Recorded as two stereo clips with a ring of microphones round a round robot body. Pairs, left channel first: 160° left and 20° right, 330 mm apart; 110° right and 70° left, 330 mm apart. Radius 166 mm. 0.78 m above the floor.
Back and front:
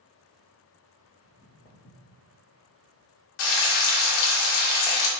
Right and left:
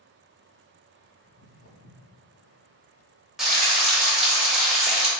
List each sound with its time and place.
1.2 s footsteps: 60° right, 1.0 m; by 2.2 s 165° right, 1.4 m
3.4 s frying: 155° left, 0.9 m